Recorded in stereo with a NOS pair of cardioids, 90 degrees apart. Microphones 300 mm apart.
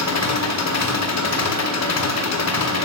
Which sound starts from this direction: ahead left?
An engine running, at 0.0 s.